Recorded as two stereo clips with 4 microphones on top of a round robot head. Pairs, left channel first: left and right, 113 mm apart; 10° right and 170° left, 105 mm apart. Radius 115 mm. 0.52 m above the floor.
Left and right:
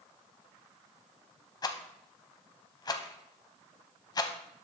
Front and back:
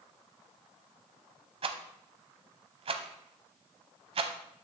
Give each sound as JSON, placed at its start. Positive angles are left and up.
{"t": 1.6, "sound": "a rattle", "azimuth_deg": 145, "distance_m": 0.6}